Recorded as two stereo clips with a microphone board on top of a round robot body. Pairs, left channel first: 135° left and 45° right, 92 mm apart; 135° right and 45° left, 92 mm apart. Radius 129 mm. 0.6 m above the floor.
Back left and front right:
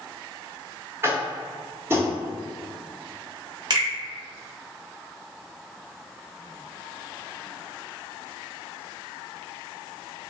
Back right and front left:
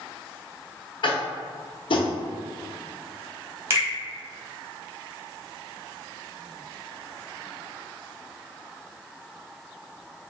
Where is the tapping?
110° right, 0.9 m.